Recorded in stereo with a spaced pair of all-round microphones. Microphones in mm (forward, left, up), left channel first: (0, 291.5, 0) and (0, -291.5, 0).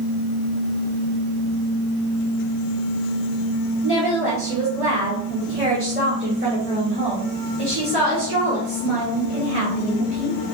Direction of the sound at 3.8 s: 20° right (ahead or behind).